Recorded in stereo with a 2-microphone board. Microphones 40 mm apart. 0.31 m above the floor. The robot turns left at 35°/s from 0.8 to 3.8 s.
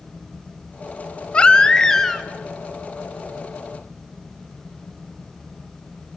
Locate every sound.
1.3 s a baby crying: 40° left, 1.1 m; by 2.2 s 10° left, 1.1 m